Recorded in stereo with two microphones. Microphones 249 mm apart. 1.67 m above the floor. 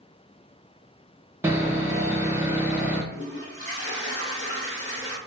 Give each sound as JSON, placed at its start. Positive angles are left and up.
{"t": 1.4, "sound": "sawing", "side_deg": -10, "distance_m": 0.8}
{"t": 3.1, "sound": "a toilet flushing", "side_deg": 55, "distance_m": 1.4}